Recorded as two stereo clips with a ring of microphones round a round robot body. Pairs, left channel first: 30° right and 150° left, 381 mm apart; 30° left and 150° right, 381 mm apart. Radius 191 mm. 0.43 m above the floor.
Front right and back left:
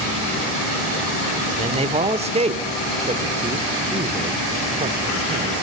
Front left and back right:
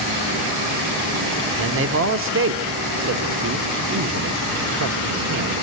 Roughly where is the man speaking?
Behind right.